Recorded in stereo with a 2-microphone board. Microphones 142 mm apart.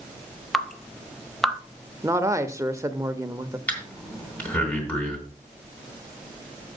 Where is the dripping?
Centre (ahead or behind), 0.7 m.